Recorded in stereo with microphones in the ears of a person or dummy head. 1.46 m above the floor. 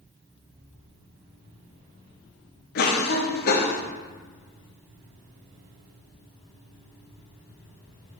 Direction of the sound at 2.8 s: 50° left (ahead or behind).